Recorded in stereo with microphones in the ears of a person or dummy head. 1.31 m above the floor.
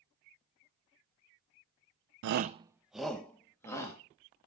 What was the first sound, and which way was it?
A shout, 65° right (ahead or behind).